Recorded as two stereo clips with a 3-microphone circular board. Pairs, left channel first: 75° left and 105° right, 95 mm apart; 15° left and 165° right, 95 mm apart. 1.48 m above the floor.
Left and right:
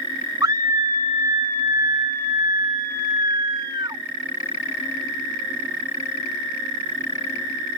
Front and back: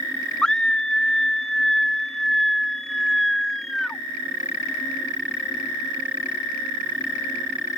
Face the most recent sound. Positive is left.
turn(degrees=-70)